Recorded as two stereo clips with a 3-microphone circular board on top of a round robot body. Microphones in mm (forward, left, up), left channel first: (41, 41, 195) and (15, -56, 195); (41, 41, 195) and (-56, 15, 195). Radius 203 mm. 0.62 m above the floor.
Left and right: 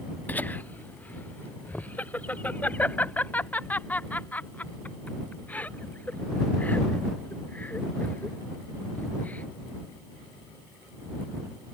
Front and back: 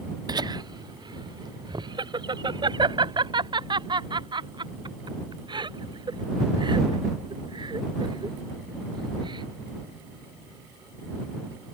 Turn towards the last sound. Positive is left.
turn(degrees=150)